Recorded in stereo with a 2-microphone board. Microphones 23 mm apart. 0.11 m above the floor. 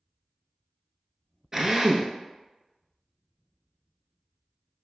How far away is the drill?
About 1.0 m.